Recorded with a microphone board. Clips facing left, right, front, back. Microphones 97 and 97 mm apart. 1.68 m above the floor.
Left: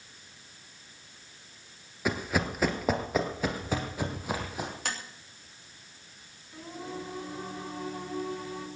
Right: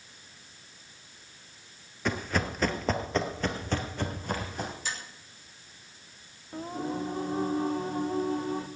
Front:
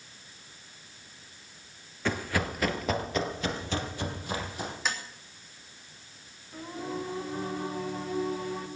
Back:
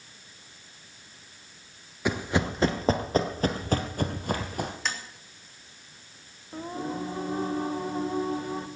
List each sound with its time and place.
2.0 s running footsteps: 150° left, 1.7 m; by 4.7 s 170° left, 3 m
4.8 s tapping: 85° left, 3 m
6.5 s singing: 130° right, 1.8 m